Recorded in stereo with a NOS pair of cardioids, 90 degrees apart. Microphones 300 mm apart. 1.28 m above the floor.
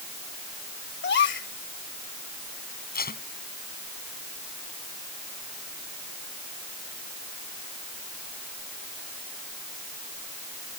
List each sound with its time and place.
1.0 s a gasp: 40° left
2.9 s tape being pulled: 30° left